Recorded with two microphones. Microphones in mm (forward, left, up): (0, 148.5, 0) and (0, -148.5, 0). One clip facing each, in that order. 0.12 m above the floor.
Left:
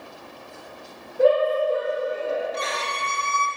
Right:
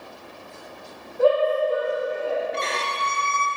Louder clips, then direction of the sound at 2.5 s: Right 1 dB; 35° right (ahead or behind).